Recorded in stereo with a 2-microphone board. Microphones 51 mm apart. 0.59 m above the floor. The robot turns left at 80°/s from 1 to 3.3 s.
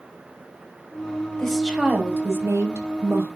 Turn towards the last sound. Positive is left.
turn(degrees=-140)